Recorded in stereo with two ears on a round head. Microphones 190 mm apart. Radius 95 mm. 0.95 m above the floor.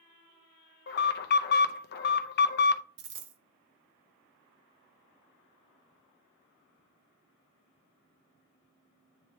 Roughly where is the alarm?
Left.